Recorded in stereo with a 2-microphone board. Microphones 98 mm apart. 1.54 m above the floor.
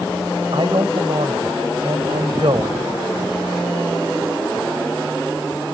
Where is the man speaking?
55° right (ahead or behind).